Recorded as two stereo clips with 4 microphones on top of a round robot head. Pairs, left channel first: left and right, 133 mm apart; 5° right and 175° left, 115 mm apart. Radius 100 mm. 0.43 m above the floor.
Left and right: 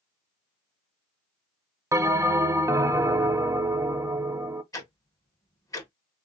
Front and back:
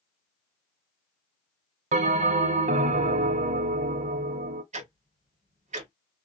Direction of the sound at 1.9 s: 160° right.